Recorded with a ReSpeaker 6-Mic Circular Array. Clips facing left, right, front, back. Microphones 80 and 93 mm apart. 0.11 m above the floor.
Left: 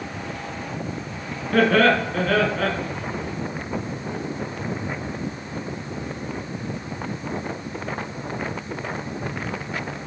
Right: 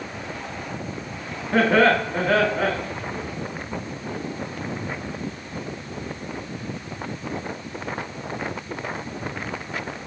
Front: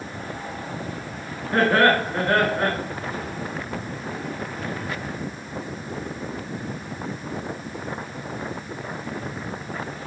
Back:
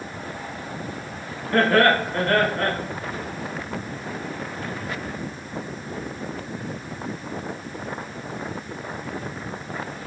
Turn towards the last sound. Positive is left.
turn(degrees=-55)